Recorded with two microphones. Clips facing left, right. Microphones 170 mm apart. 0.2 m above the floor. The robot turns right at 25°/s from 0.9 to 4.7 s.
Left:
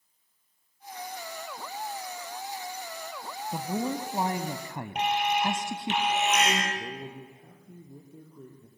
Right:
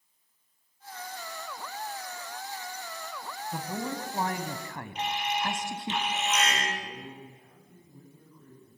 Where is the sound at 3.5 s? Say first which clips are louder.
Left 4 dB; 20° left (ahead or behind), 1.0 m.